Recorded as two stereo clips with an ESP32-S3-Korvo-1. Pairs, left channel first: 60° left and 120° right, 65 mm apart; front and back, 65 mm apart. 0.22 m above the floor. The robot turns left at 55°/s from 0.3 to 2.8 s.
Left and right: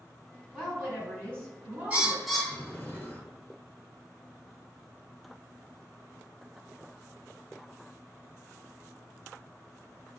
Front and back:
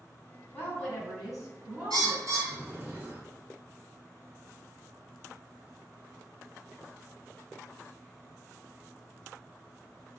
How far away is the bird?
About 0.7 m.